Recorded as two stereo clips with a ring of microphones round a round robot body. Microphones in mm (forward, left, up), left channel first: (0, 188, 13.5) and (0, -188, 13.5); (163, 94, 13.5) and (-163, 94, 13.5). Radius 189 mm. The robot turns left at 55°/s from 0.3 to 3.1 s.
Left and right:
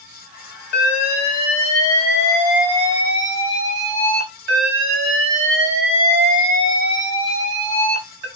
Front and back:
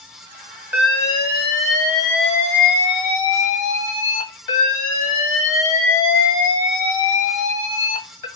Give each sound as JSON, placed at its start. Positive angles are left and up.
{"t": 0.7, "sound": "an alarm", "azimuth_deg": 100, "distance_m": 3.0}